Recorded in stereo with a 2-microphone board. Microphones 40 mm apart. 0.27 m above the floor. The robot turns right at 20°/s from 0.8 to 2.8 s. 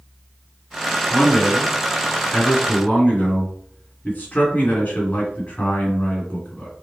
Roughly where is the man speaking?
Ahead.